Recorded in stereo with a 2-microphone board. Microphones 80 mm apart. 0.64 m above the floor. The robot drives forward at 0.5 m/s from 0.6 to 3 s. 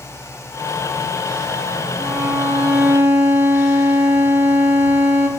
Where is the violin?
20° right (ahead or behind), 1.2 m; by 5.3 s 30° right (ahead or behind), 0.8 m.